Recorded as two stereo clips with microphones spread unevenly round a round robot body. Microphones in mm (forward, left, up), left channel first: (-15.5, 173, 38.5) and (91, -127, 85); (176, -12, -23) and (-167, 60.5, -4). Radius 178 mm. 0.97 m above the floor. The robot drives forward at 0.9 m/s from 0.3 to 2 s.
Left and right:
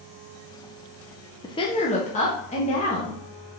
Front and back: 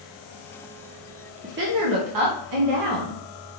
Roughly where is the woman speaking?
Behind left.